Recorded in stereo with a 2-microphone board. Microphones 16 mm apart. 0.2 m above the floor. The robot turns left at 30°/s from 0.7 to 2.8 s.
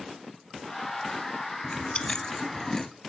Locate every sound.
1.6 s chewing: 60° left (ahead or behind), 0.9 m; by 2.9 s 25° left (ahead or behind), 0.9 m